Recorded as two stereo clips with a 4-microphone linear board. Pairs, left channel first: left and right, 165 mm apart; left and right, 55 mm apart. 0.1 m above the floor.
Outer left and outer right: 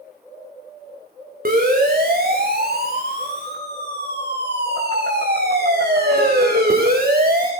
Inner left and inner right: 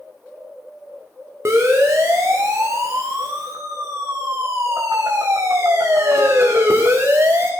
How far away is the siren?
About 7.5 m.